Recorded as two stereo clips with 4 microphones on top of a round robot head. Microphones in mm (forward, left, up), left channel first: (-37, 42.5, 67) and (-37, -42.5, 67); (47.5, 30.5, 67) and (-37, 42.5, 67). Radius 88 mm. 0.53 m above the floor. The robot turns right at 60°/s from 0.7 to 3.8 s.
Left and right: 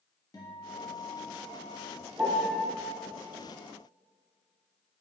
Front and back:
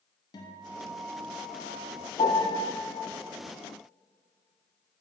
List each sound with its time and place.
0.3 s a guitar: 35° left, 1.1 m; by 2.1 s 115° left, 1.1 m
2.2 s a piano: 15° right, 1.0 m; by 2.7 s 10° left, 1.0 m